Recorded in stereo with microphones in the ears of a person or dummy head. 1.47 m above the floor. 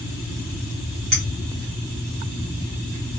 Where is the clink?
35° right (ahead or behind), 0.8 m.